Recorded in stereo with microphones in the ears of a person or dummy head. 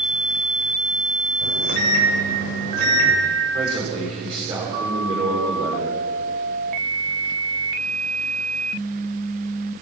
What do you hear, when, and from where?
1.4 s a microwave: 55° right (ahead or behind), 8 m
3.5 s a man speaking: 30° right (ahead or behind), 6.5 m